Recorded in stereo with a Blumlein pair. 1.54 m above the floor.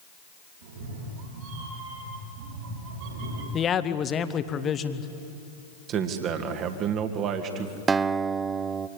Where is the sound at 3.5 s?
25° left, 1.3 m.